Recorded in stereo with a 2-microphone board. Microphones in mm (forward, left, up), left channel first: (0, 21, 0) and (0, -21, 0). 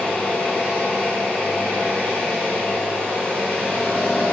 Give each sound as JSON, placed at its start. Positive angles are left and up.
{"t": 0.0, "sound": "an engine running", "side_deg": 10, "distance_m": 1.7}